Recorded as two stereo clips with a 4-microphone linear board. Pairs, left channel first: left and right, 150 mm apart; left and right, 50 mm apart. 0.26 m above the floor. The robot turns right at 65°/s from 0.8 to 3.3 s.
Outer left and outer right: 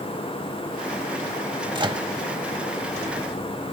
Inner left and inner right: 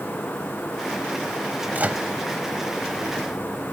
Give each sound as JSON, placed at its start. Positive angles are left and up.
{"t": 1.7, "sound": "a microwave", "side_deg": -35, "distance_m": 0.8}